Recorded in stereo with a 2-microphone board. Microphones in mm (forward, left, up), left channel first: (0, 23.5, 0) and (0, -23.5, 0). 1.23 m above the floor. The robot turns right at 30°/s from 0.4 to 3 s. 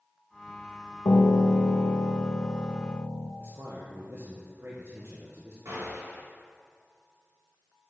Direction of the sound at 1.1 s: 90° left.